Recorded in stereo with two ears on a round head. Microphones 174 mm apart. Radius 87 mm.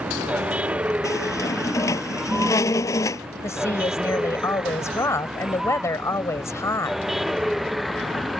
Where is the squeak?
15° left (ahead or behind).